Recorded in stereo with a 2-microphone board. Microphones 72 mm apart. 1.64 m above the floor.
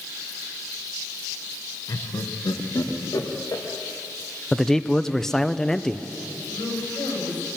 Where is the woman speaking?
85° left, 9 m.